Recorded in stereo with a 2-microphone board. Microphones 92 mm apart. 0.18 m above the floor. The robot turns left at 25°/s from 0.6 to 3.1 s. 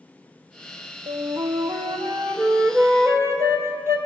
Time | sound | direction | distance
1.1 | a flute | 100° right | 0.8 m